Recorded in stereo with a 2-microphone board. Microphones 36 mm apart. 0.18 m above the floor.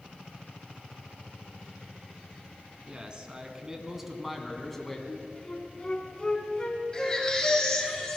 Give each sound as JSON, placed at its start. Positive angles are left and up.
{"t": 2.9, "sound": "a man speaking", "side_deg": -30, "distance_m": 2.0}
{"t": 5.1, "sound": "a flute", "side_deg": 20, "distance_m": 1.5}
{"t": 6.9, "sound": "a baby crying", "side_deg": 25, "distance_m": 3.5}